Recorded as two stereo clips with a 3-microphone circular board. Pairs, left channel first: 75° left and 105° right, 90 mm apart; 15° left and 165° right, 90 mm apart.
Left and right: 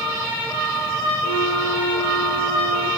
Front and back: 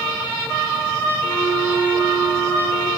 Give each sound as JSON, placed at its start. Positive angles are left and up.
{"t": 1.2, "sound": "a flute", "azimuth_deg": 125, "distance_m": 7.0}